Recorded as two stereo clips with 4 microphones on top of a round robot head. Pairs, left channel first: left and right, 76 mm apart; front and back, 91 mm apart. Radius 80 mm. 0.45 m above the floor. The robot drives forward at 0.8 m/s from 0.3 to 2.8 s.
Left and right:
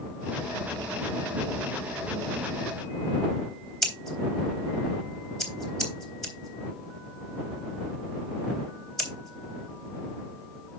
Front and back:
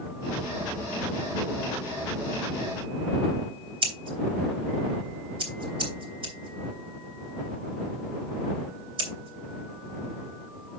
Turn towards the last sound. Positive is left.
turn(degrees=175)